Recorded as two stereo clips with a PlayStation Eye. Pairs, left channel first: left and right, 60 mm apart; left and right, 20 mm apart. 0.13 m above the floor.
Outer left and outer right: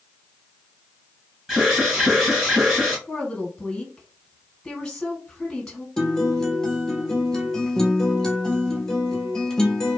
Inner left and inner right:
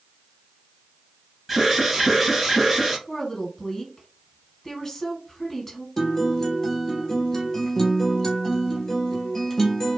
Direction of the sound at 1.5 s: 10° right (ahead or behind).